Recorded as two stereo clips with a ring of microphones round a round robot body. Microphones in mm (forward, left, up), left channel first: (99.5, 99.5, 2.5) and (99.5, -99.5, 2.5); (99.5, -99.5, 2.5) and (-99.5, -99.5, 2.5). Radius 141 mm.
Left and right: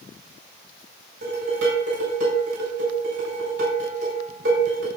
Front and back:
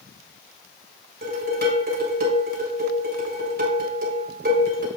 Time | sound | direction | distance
1.2 | dishes clattering | 145° right | 4.5 m